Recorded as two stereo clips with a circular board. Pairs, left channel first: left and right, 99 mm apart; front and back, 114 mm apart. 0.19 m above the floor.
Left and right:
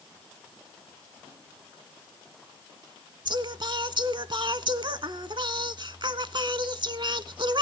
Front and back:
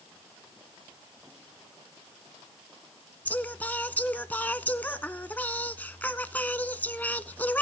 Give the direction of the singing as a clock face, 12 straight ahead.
2 o'clock.